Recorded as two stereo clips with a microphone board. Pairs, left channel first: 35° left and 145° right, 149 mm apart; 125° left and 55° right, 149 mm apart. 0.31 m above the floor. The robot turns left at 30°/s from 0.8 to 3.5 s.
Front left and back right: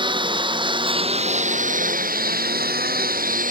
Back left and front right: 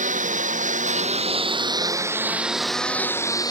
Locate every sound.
0.0 s a lawn mower: 90° right; by 3.5 s 170° right